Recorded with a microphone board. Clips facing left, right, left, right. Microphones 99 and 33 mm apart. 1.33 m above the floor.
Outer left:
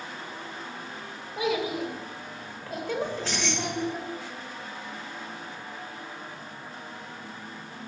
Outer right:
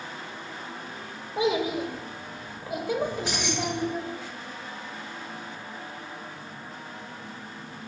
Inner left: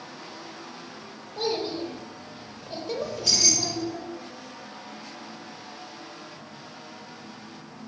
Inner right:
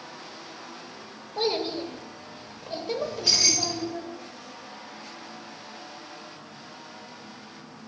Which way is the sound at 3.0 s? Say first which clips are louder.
Outer right 2 dB, even; 15° right (ahead or behind).